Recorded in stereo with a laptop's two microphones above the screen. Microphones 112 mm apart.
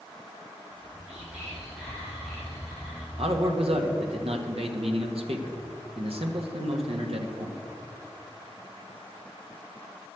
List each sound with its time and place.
0.7 s whispering: 10° right (ahead or behind), 6 m
3.2 s a man speaking: 65° right (ahead or behind), 1.5 m